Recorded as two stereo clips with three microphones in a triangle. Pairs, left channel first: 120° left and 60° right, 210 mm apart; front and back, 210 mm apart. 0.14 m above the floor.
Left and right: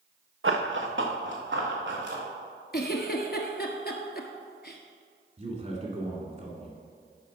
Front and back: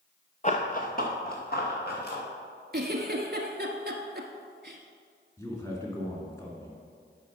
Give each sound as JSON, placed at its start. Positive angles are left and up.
{"t": 0.4, "sound": "running footsteps", "azimuth_deg": -50, "distance_m": 1.0}
{"t": 2.7, "sound": "a giggle", "azimuth_deg": 150, "distance_m": 1.0}
{"t": 5.4, "sound": "a man speaking", "azimuth_deg": -65, "distance_m": 1.9}